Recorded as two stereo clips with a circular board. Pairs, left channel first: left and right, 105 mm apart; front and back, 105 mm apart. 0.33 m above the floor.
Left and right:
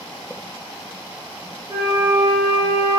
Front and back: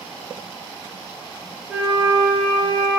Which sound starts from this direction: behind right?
A flute, at 1.7 s.